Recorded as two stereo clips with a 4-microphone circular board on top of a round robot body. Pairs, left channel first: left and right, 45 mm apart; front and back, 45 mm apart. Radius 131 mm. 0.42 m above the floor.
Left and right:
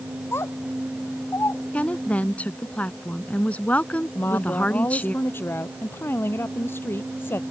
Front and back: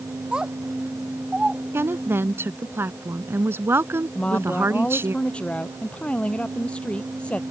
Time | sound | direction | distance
0.3 | a child speaking | 110° left | ?
1.7 | a woman speaking | 150° left | ?
4.2 | a woman speaking | 60° left | ?